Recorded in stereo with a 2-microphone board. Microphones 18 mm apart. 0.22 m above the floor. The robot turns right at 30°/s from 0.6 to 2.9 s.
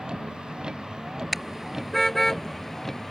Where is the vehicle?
60° right; by 3.1 s 10° left.